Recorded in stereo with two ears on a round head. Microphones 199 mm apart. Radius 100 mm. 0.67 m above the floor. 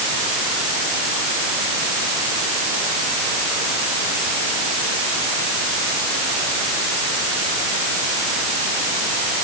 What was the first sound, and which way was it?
Only background noise.